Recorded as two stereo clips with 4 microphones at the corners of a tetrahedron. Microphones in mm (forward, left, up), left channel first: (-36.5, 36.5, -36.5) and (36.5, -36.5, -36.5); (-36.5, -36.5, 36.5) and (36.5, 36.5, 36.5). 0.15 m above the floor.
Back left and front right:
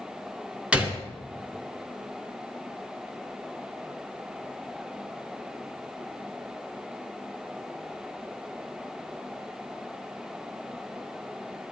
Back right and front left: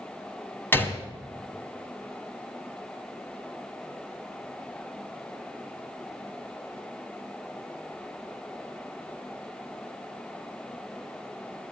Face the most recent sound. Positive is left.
turn(degrees=-105)